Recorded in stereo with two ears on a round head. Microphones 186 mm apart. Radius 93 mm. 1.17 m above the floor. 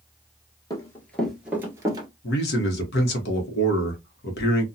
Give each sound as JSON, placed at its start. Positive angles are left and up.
{"t": 0.7, "sound": "running footsteps", "side_deg": 20, "distance_m": 1.2}
{"t": 2.2, "sound": "a man speaking", "side_deg": 50, "distance_m": 1.0}